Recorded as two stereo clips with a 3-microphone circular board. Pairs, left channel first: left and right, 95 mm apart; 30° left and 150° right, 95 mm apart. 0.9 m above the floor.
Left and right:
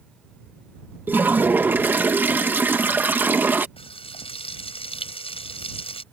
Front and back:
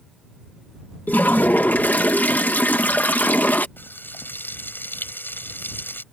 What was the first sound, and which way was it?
A toilet flushing, 30° right.